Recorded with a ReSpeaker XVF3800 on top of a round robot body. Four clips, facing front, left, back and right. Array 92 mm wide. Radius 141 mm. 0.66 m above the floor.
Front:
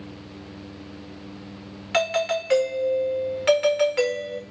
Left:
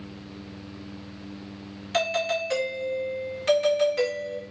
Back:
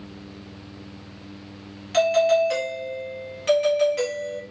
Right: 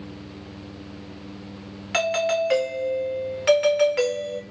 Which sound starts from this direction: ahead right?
A doorbell, at 1.9 s.